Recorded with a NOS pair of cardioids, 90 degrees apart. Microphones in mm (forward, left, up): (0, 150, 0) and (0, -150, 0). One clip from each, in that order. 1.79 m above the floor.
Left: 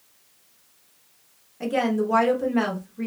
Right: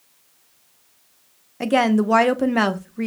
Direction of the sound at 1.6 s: 50° right.